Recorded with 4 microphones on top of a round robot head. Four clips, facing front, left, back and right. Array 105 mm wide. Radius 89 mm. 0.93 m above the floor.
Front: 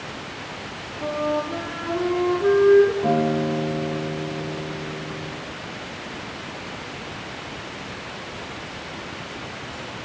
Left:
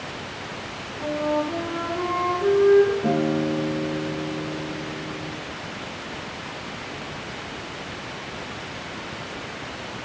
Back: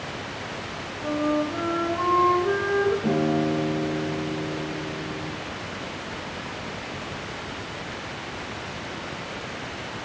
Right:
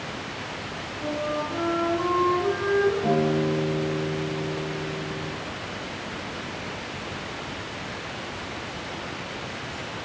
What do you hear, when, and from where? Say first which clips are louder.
1.0 s a flute: left 4 dB, even; 20° left, 3.5 m
3.0 s a guitar: even, front 2 dB; 10° left, 3 m